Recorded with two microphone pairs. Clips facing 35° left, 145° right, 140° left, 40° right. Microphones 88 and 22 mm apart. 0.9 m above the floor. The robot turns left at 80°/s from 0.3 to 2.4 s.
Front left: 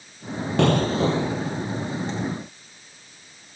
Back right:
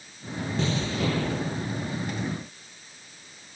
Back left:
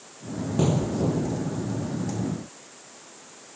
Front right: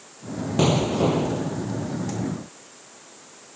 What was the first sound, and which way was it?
An explosion, 15° left.